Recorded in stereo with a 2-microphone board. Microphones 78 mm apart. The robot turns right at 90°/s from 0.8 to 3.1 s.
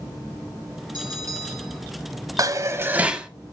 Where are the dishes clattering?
80° right, 1.1 m; by 3.3 s 15° right, 1.1 m.